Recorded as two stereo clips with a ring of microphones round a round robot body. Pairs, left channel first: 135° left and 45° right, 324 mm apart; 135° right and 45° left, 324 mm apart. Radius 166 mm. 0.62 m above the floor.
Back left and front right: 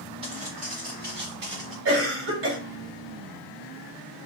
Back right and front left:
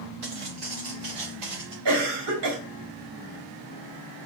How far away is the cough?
About 3.5 m.